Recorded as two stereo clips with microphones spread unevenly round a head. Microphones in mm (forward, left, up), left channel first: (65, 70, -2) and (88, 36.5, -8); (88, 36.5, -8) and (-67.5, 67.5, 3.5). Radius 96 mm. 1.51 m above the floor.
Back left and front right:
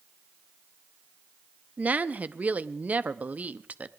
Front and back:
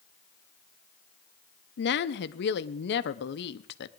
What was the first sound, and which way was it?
A woman speaking, straight ahead.